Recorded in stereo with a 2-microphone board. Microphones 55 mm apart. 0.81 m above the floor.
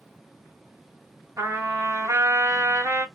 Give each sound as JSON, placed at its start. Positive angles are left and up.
{"t": 1.4, "sound": "a trumpet", "side_deg": -65, "distance_m": 1.3}